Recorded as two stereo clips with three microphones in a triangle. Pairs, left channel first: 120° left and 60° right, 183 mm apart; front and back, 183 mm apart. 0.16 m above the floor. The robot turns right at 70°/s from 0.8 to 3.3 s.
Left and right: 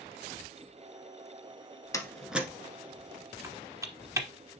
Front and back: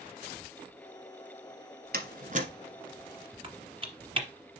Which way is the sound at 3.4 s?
125° right.